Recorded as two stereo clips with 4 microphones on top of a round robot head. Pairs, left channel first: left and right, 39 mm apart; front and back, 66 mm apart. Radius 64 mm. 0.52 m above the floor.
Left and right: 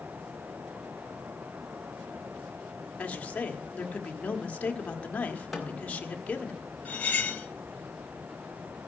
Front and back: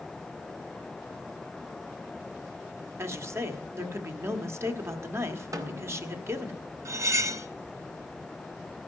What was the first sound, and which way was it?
A woman speaking, 140° left.